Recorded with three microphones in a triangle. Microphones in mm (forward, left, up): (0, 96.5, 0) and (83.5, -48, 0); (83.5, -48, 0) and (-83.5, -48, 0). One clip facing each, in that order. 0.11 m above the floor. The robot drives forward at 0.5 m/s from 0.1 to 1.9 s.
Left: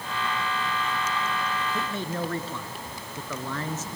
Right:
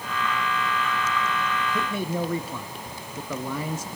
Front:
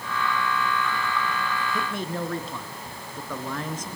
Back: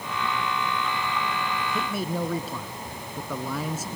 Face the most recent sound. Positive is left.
turn(degrees=-110)